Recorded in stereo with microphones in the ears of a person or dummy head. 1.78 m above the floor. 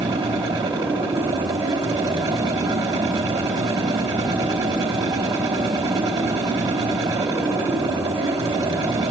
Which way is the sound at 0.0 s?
20° right (ahead or behind).